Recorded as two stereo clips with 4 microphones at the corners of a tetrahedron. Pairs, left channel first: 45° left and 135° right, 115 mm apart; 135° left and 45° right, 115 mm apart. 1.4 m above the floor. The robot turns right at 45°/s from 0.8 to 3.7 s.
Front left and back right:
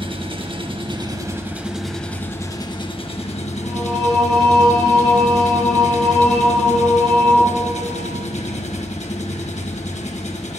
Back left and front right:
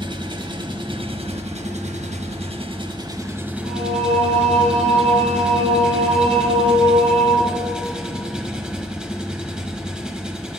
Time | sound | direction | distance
0.0 | an engine running | 95° right | 1.2 m
3.6 | singing | 55° right | 3.5 m